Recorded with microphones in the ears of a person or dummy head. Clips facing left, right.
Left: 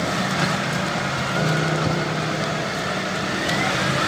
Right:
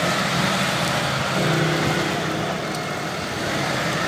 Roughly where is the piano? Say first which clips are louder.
Right 1 dB; centre.